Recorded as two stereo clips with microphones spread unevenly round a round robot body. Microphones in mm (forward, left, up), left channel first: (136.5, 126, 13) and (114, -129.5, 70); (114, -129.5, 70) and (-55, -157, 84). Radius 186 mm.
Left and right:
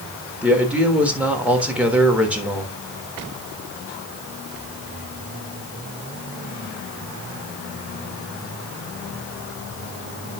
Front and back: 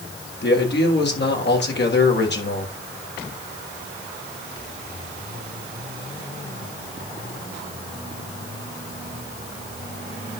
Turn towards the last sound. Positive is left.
turn(degrees=-5)